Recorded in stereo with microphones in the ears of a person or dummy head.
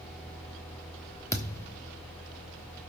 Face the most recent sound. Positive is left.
turn(degrees=15)  # may be behind; listen again after turning